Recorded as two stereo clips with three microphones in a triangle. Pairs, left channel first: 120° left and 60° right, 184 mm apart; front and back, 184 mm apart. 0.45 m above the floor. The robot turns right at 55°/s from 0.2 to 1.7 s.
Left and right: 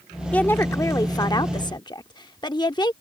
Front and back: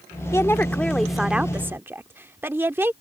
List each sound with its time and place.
0.3 s a woman speaking: 45° left; by 2.9 s 125° left